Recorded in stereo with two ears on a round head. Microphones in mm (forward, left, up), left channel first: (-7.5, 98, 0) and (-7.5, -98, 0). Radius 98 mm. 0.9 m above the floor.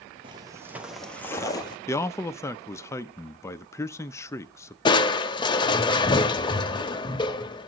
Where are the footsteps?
25° right (ahead or behind), 1.0 m; by 1.8 s 20° left (ahead or behind), 1.2 m.